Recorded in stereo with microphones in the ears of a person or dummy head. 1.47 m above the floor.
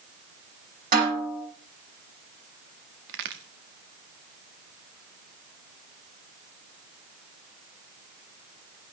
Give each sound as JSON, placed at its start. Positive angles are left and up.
{"t": 0.9, "sound": "a snare drum", "side_deg": -45, "distance_m": 9.5}
{"t": 3.1, "sound": "a crack", "side_deg": -65, "distance_m": 1.6}